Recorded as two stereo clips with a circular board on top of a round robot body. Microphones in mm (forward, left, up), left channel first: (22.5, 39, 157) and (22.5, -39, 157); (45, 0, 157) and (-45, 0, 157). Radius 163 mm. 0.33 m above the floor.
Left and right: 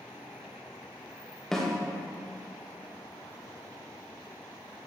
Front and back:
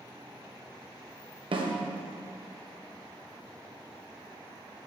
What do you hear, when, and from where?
1.5 s a snare drum: 175° left, 1.3 m